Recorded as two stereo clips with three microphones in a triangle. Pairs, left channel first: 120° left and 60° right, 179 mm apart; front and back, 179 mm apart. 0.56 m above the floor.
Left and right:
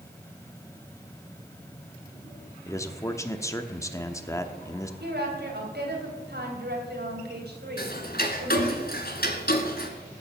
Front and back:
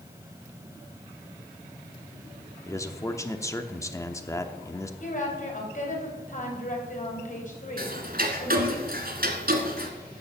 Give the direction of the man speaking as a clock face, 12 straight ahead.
10 o'clock.